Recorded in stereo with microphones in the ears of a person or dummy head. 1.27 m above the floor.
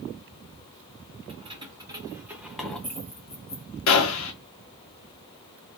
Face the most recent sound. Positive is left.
turn(degrees=70)  # may be behind; listen again after turning